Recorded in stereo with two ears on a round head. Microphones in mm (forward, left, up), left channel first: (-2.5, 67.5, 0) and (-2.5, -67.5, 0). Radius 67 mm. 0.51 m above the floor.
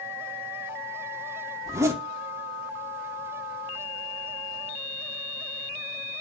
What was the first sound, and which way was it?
A zipper, 20° right (ahead or behind).